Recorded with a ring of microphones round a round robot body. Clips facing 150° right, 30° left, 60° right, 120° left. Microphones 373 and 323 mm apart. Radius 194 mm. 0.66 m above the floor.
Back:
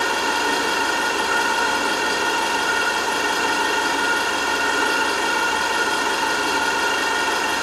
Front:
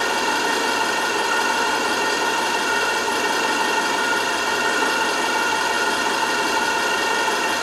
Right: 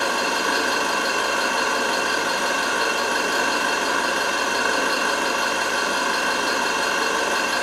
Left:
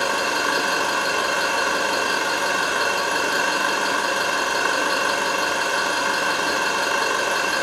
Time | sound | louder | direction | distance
0.0 | an engine running | even, even | 65° left | 1.4 m